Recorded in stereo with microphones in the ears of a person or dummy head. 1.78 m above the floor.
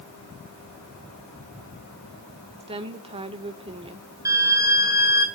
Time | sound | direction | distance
2.6 | a woman speaking | 35° right (ahead or behind) | 2.0 m
4.2 | a violin | 20° right (ahead or behind) | 1.8 m